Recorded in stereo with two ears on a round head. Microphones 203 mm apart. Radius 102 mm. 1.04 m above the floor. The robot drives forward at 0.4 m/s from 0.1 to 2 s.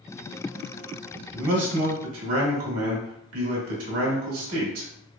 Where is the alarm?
I don't hear an alarm.